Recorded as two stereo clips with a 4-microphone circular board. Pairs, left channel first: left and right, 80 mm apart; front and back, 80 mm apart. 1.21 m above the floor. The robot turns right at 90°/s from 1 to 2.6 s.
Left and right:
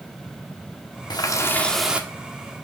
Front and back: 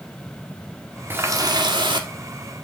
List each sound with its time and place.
1.1 s a running tap: 115° left, 1.5 m; by 2.1 s 155° right, 1.5 m